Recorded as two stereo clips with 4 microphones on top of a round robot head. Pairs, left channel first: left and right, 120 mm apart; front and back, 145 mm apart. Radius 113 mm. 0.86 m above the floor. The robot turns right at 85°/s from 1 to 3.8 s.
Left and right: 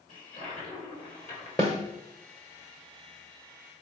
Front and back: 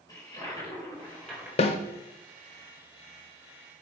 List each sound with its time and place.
0.1 s a toilet flushing: 60° left, 3.5 m; by 1.5 s 105° left, 3.5 m
1.6 s a snare drum: 20° left, 0.7 m; by 1.8 s 35° left, 0.7 m